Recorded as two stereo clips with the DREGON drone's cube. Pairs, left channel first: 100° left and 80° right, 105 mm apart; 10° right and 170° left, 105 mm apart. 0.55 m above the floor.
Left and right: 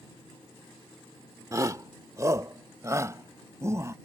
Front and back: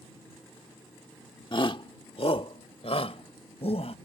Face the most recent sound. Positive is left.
turn(degrees=-15)